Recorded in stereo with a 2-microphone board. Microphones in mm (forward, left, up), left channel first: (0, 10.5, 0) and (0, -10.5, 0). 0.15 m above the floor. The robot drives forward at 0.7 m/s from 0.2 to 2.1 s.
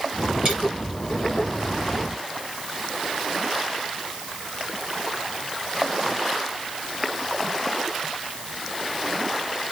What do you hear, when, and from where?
0.5 s a dropped coin: 30° right (ahead or behind), 7 m